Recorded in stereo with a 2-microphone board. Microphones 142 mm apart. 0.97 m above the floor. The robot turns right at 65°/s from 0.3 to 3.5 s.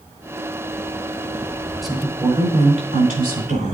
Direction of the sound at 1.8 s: Straight behind.